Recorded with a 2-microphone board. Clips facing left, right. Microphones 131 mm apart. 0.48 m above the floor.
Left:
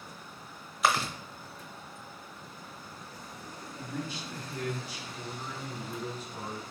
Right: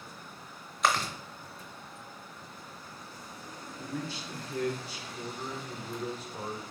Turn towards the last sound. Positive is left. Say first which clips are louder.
# even
turn(degrees=-30)  # may be behind; listen again after turning